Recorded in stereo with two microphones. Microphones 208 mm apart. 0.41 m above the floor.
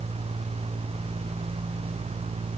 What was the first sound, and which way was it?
Only background noise.